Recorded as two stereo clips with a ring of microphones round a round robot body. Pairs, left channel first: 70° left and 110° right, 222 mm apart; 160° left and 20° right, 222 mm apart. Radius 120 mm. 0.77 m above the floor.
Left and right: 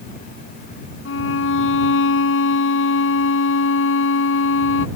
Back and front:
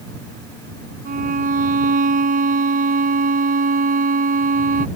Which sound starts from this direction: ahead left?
A violin, at 1.1 s.